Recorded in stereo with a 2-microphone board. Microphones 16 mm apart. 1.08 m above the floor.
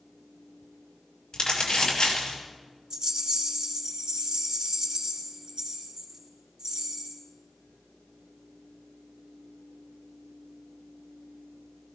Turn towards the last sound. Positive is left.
turn(degrees=-65)  # may be behind; listen again after turning